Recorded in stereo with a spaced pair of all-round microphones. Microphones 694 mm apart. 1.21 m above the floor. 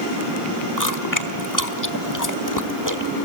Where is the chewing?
25° left (ahead or behind), 1.2 m.